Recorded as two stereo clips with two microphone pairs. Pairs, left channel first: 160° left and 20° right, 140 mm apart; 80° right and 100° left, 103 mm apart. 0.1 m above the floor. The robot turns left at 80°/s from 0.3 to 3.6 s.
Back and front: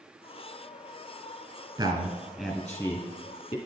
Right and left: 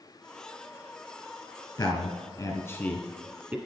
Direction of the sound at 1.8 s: 50° right.